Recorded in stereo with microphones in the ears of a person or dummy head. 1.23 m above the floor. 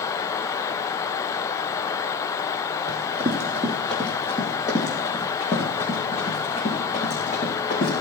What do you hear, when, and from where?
2.9 s running footsteps: 25° right (ahead or behind), 2.5 m; by 7.9 s 40° left (ahead or behind), 5.5 m